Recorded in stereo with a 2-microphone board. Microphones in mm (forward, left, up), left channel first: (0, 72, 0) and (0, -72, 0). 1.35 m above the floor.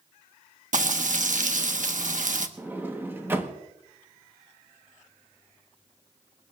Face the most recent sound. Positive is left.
turn(degrees=-15)  # may be behind; listen again after turning